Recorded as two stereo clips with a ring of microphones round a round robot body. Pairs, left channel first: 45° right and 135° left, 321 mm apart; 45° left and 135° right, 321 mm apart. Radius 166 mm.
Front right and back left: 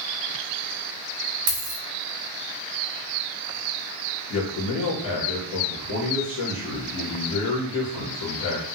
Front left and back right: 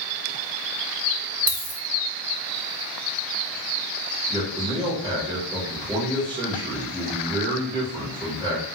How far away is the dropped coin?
About 0.6 m.